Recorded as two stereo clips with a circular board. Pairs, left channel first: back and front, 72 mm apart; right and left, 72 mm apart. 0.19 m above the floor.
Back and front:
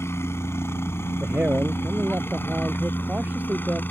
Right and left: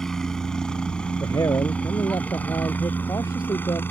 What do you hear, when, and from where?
0.0 s a helicopter: 170° right; by 3.9 s 130° right
1.2 s a man speaking: 65° right